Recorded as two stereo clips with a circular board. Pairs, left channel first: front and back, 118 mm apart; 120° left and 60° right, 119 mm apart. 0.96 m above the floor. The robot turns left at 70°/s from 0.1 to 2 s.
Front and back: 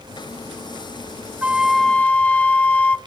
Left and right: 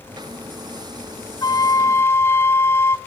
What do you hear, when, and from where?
1.4 s a flute: 110° left, 0.8 m; by 3.0 s 70° left, 0.8 m